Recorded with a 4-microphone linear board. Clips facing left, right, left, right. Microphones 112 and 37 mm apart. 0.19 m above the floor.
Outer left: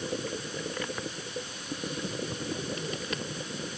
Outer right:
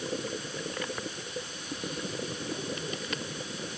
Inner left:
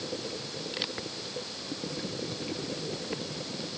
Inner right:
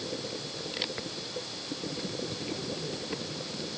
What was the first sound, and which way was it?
Only background noise.